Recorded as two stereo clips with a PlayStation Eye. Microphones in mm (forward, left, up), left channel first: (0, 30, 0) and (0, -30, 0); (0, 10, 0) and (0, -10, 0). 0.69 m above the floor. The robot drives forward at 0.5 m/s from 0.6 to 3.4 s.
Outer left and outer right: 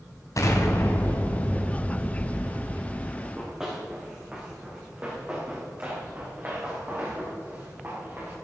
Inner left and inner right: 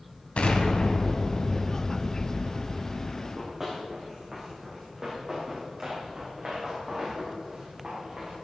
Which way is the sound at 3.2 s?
5° right (ahead or behind).